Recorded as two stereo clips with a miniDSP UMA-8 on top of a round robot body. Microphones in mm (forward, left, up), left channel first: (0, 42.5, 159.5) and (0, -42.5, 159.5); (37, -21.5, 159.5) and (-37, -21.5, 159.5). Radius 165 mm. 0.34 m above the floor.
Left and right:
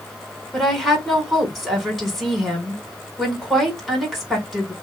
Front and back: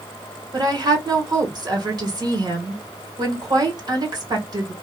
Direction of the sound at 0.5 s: Straight behind.